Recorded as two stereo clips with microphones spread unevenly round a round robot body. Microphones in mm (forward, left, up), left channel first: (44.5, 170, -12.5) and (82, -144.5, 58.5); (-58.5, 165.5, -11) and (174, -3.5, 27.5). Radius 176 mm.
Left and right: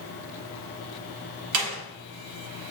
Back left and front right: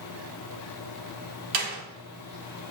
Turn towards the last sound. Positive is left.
turn(degrees=-45)